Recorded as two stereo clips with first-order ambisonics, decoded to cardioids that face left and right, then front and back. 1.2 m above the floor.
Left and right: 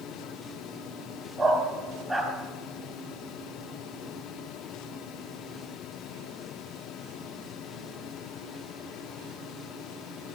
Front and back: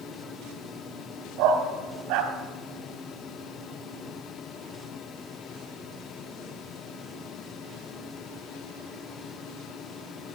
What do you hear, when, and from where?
1.4 s a dog barking: 160° right, 1.9 m